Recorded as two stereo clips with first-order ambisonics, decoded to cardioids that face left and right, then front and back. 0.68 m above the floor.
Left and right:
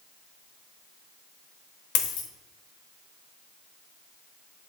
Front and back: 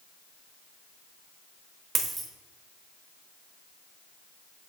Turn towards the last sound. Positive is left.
turn(degrees=105)